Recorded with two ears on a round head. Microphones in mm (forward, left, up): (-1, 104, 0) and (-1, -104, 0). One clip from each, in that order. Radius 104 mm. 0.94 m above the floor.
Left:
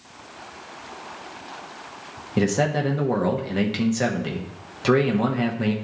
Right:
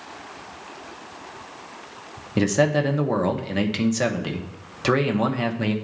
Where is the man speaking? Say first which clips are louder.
Right 2 dB; 15° right (ahead or behind), 0.7 m.